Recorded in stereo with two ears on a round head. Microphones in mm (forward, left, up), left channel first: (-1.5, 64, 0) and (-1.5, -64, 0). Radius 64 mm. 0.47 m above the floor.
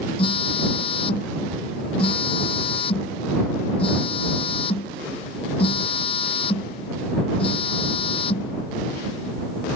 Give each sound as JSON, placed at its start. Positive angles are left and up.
{"t": 0.2, "sound": "a phone buzzing", "side_deg": 40}